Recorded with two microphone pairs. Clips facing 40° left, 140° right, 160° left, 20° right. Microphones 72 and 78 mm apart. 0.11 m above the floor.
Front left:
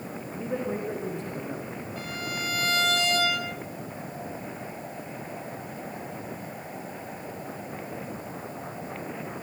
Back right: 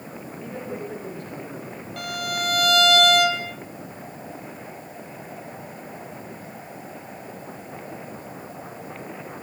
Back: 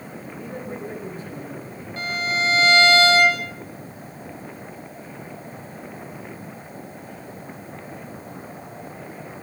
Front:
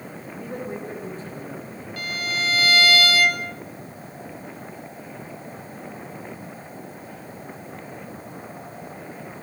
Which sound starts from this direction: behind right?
A violin, at 2.0 s.